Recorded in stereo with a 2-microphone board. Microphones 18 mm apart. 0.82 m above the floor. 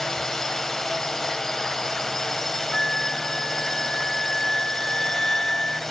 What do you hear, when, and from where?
0.0 s a drone: 25° left (ahead or behind); by 5.9 s 20° left (ahead or behind)
2.7 s a flute: 30° left (ahead or behind)